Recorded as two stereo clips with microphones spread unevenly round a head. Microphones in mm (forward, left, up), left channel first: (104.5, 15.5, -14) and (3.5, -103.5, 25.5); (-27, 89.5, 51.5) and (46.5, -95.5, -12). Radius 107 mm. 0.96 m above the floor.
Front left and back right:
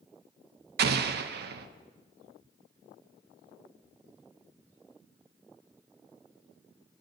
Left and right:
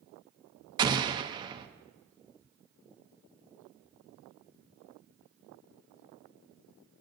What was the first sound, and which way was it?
An explosion, 120° right.